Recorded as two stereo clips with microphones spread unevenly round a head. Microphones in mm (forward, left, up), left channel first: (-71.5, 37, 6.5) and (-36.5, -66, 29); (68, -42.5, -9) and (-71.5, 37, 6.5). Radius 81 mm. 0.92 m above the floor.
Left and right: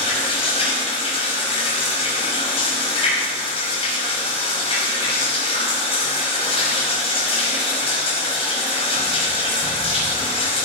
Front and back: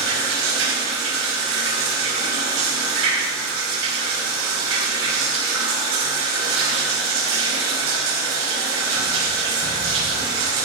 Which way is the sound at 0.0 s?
145° left.